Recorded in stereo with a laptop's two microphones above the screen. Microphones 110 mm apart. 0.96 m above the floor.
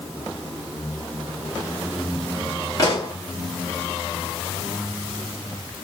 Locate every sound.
2.8 s a pop: 35° left (ahead or behind), 1.3 m